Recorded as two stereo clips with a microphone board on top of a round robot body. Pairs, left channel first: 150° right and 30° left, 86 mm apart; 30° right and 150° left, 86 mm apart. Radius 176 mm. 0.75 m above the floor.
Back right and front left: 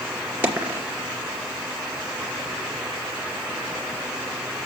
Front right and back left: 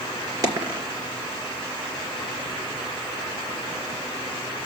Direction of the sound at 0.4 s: 100° left.